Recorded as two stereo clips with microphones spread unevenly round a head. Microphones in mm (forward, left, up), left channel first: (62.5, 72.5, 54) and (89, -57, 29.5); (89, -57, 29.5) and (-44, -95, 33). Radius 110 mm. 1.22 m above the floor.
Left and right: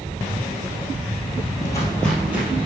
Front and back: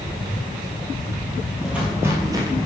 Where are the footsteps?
115° left, 1.4 m; by 2.7 s 150° right, 1.4 m.